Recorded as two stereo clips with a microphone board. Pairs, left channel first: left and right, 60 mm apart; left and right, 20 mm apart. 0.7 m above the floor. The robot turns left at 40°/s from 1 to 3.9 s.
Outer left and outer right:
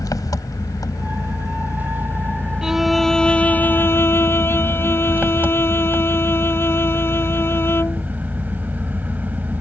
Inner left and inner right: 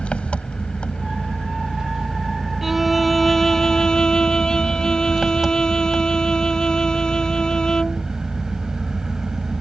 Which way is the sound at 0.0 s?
85° left.